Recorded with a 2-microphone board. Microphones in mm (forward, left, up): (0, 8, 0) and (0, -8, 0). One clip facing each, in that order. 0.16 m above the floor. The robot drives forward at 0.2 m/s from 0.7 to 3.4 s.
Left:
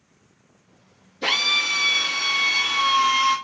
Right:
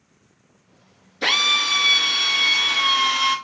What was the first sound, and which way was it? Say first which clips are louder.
A drill: right 2 dB; 55° right (ahead or behind).